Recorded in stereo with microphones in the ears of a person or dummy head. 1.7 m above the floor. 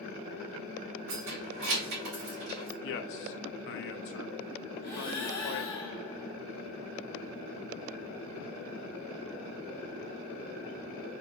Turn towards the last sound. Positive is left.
turn(degrees=20)  # may be behind; listen again after turning